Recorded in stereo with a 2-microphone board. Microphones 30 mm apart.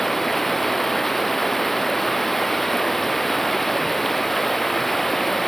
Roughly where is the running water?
Centre.